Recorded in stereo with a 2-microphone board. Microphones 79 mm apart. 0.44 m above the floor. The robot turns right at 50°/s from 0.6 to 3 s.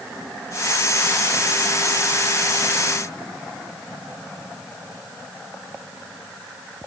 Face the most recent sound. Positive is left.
No sound to turn to.